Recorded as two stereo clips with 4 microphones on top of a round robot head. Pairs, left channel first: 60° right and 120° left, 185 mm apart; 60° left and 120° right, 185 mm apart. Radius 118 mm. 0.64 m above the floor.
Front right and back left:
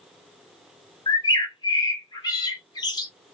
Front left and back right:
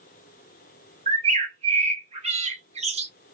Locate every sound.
1.1 s a bird: 110° right, 1.1 m